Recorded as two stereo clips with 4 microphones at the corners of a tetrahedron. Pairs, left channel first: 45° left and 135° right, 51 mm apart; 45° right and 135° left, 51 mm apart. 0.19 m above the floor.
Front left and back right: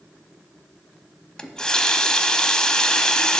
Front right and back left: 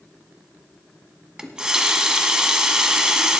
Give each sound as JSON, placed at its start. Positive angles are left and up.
{"t": 1.4, "sound": "a running tap", "azimuth_deg": 85, "distance_m": 0.9}